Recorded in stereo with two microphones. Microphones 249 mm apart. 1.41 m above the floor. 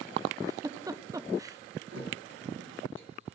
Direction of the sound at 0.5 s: 15° right (ahead or behind).